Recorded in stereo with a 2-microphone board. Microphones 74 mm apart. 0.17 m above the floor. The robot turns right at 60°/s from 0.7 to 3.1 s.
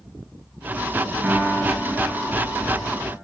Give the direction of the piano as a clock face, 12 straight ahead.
1 o'clock.